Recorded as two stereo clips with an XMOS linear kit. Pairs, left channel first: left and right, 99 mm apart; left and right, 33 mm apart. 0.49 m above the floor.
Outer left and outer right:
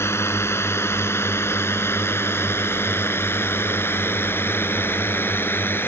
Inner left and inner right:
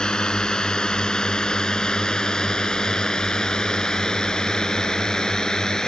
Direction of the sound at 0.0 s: 25° left (ahead or behind).